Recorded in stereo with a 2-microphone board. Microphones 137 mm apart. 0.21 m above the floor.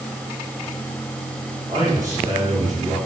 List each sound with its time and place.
1.7 s a man speaking: 25° right (ahead or behind), 7 m